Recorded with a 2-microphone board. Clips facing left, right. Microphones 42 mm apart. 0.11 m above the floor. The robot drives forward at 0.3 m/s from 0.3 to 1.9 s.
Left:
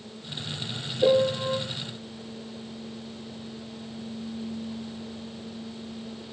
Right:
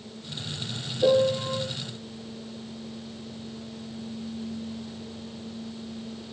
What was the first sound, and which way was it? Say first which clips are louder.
A piano: even; 45° left (ahead or behind).